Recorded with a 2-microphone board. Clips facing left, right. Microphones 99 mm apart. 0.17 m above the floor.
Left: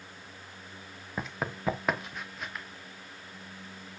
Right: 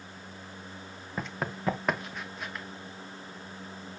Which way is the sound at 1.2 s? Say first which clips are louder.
Even; 5° left (ahead or behind).